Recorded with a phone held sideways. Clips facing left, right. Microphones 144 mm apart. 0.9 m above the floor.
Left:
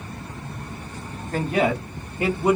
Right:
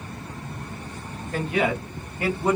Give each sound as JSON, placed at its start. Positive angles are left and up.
{"t": 1.3, "sound": "a man speaking", "side_deg": 45, "distance_m": 1.5}